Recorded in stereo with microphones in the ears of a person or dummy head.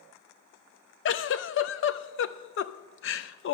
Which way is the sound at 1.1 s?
60° left (ahead or behind).